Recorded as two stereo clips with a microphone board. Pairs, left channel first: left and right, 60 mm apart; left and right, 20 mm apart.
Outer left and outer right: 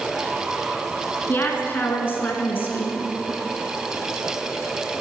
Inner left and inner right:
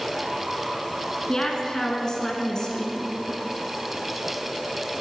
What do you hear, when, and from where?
1.3 s a woman speaking: 35° left (ahead or behind), 1.3 m